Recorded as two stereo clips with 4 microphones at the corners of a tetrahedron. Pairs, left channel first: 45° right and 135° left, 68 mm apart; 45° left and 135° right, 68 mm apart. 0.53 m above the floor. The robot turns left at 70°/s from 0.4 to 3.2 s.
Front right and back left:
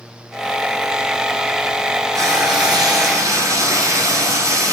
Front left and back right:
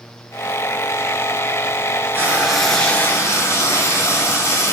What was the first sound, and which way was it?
Frying, 170° left.